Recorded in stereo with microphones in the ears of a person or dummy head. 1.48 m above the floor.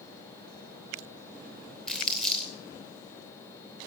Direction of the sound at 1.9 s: 5° left (ahead or behind).